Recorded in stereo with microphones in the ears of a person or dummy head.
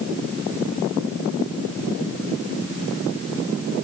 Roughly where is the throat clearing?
No throat clearing in this recording.